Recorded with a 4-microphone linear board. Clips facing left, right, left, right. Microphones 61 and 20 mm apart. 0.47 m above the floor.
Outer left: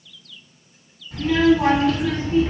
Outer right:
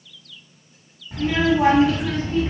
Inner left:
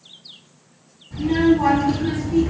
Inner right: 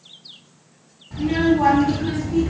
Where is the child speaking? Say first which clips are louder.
Outer left 3 dB, inner left 1 dB; 25° right (ahead or behind), 1.0 m; by 2.5 s 20° left (ahead or behind), 0.6 m.